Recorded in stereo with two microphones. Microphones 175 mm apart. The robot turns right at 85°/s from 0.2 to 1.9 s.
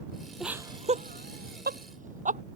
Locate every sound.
0.4 s laughter: centre (ahead or behind); by 2.4 s 50° right (ahead or behind)